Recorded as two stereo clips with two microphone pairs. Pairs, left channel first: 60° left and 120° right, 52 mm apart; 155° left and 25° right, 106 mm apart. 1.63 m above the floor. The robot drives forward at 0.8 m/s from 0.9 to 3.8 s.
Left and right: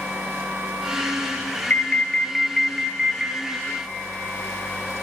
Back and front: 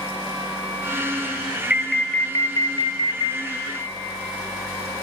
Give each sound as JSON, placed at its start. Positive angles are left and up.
{"t": 1.7, "sound": "an alarm", "azimuth_deg": 50, "distance_m": 0.8}